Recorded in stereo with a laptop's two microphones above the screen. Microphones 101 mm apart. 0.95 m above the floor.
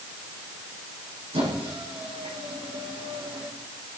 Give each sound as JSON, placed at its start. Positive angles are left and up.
{"t": 1.3, "sound": "a squeak", "side_deg": -80, "distance_m": 7.0}